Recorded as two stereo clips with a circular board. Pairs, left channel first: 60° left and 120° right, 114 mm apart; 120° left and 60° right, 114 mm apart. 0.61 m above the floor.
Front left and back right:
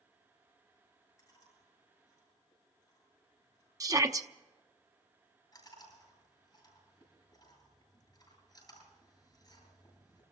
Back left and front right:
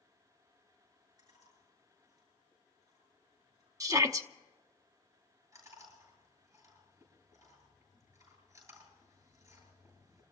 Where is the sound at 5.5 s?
Straight ahead, 9 m.